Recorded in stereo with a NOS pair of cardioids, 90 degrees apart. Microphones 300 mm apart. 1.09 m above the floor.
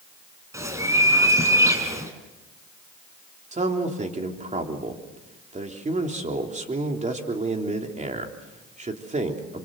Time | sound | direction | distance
0.5 | a bird | 10° right | 4 m
3.5 | a man speaking | 25° right | 3.5 m